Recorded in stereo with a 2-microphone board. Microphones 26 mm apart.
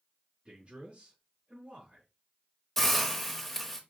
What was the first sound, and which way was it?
A man speaking, 35° right (ahead or behind).